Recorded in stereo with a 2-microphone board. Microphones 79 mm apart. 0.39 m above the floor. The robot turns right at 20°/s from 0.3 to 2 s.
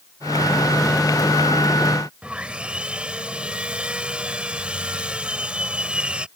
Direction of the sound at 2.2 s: 15° right (ahead or behind).